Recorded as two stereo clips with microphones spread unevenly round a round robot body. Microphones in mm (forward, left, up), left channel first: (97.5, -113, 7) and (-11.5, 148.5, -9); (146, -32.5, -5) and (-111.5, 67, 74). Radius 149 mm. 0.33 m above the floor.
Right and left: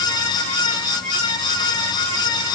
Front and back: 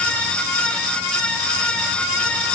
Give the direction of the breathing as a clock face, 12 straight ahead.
I don't hear breathing.